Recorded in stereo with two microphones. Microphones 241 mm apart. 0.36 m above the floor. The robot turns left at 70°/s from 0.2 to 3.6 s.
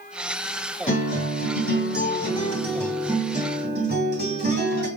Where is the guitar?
140° left, 2.5 m; by 4.9 s 55° right, 2.5 m.